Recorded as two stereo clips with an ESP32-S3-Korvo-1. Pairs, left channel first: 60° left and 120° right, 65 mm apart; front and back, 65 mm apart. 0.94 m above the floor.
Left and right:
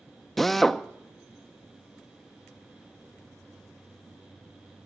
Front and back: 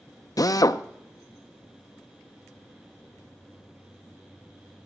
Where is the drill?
25° right, 0.5 m.